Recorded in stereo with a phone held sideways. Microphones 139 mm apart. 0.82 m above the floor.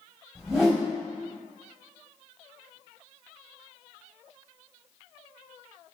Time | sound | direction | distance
0.3 | a whoosh | 5° right (ahead or behind) | 3 m